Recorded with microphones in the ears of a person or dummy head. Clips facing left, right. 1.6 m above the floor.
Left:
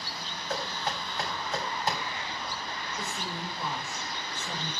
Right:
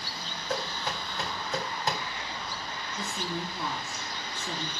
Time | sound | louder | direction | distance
0.5 | knocking | even | 80° right | 3.5 m
3.0 | a woman speaking | right 4 dB | 60° right (ahead or behind) | 4 m